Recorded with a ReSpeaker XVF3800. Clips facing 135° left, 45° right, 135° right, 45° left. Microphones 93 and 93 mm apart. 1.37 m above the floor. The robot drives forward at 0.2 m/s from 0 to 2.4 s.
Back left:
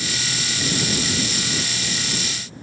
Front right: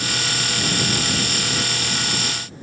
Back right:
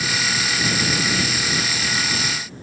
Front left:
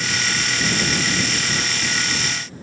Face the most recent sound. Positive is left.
No sound to turn to.